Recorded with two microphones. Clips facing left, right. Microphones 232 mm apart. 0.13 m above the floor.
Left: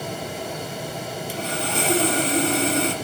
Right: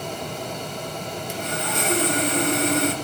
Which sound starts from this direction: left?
Sawing, at 1.3 s.